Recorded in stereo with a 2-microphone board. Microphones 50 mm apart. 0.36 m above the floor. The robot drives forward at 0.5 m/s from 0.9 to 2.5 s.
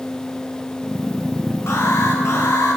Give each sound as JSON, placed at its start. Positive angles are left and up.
{"t": 1.7, "sound": "an alarm", "side_deg": 75, "distance_m": 7.5}